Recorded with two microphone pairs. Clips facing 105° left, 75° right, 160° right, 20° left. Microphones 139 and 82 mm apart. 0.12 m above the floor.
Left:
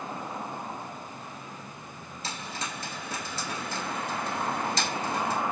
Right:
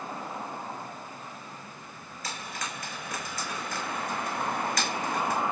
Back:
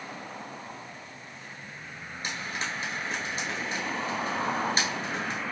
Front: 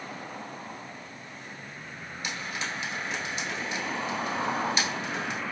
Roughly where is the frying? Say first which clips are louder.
Left 1 dB, back 1 dB; behind.